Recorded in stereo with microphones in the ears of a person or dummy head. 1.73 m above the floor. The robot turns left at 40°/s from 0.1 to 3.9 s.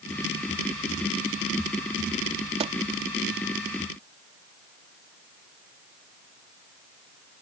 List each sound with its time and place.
2.6 s a pop: 30° right (ahead or behind); by 2.7 s 25° right (ahead or behind)